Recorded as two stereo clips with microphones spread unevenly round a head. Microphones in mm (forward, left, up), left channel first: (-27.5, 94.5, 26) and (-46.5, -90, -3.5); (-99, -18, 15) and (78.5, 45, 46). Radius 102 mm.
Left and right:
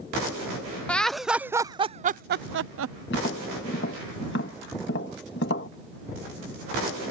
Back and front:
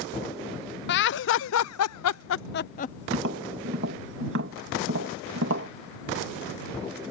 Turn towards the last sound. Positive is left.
turn(degrees=45)